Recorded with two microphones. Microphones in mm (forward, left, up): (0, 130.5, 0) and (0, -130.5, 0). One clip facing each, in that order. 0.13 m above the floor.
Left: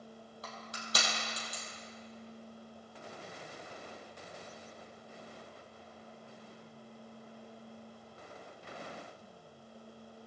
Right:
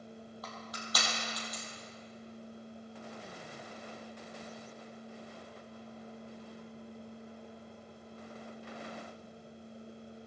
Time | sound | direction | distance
0.4 | crushing | 30° left (ahead or behind) | 3 m